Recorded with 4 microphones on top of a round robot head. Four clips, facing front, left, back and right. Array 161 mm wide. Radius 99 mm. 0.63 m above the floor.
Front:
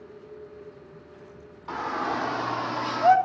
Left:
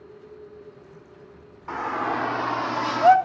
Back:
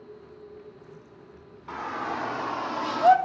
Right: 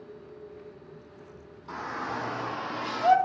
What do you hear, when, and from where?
1.7 s a shout: 65° left, 2.5 m; by 3.2 s 105° left, 1.3 m